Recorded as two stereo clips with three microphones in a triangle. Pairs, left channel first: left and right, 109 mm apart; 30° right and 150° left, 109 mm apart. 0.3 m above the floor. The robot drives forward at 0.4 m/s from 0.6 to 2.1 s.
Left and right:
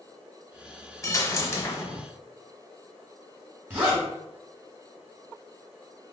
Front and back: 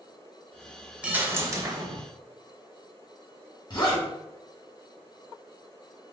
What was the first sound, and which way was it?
A dropped coin, 85° left.